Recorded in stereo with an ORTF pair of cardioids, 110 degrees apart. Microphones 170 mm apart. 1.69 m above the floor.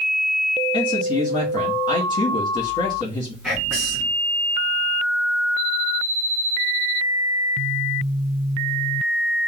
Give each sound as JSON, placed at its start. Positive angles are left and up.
{"t": 0.7, "sound": "a man speaking", "azimuth_deg": 25, "distance_m": 1.4}
{"t": 3.4, "sound": "whispering", "azimuth_deg": -5, "distance_m": 2.0}